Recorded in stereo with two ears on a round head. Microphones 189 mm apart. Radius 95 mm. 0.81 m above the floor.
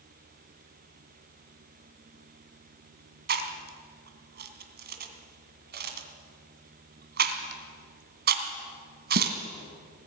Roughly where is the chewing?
Right.